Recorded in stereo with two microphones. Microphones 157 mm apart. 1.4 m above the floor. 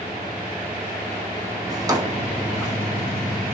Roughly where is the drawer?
Right.